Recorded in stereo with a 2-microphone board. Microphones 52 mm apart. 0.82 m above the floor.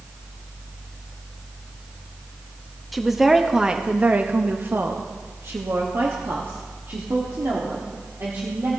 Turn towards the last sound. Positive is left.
turn(degrees=-55)  # may be behind; listen again after turning